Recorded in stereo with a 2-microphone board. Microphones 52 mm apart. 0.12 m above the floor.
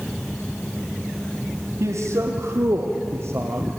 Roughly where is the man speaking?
Right.